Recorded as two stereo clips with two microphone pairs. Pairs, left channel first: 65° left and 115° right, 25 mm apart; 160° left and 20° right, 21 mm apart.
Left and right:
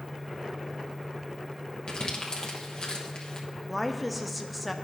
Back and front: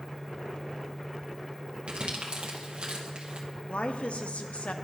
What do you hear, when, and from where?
1.9 s crumpling: 15° left, 0.9 m
3.7 s a woman speaking: 155° left, 0.6 m